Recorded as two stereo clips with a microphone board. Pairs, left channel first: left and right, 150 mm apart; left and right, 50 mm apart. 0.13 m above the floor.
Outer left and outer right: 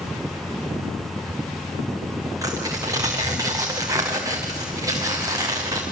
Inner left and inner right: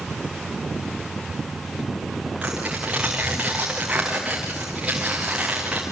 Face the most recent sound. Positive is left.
turn(degrees=-25)  # may be behind; listen again after turning